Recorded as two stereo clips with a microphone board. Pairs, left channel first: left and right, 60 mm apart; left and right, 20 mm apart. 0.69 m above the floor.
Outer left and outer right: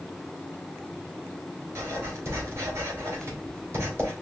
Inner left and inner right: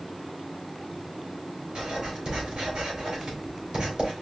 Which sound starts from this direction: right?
Writing, at 1.8 s.